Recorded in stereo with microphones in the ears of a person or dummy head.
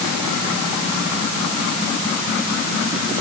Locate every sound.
Only background noise.